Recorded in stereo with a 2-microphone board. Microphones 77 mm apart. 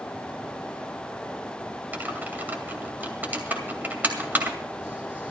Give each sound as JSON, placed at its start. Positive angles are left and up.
{"t": 1.9, "sound": "typing on a keyboard", "side_deg": -25, "distance_m": 2.0}